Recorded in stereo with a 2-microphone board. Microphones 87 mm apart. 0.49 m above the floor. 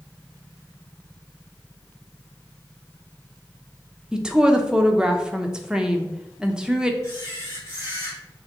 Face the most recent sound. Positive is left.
turn(degrees=35)  # may be behind; listen again after turning